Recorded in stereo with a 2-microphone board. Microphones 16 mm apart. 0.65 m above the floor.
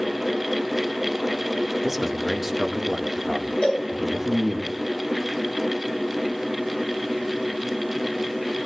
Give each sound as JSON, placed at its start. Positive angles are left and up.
{"t": 1.8, "sound": "a man speaking", "side_deg": -15, "distance_m": 1.5}
{"t": 3.6, "sound": "a cowbell", "side_deg": 85, "distance_m": 2.5}